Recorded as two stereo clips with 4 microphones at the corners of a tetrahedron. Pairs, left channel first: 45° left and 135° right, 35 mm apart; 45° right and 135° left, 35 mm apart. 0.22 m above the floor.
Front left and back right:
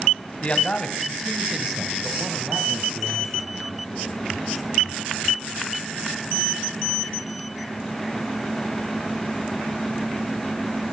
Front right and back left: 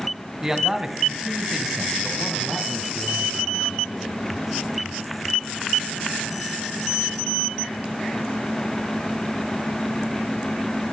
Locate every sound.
0.4 s a man speaking: 65° left, 1.5 m; by 4.2 s 125° right, 2.5 m